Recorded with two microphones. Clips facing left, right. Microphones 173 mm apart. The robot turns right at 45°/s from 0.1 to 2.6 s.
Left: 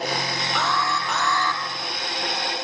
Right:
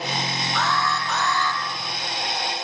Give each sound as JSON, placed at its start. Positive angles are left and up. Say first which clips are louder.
{"t": 0.6, "sound": "an alarm", "louder": "right 1 dB", "azimuth_deg": 85, "distance_m": 3.5}